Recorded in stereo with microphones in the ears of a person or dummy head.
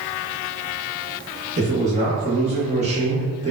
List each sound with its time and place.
1.6 s a man speaking: 35° right (ahead or behind), 1.9 m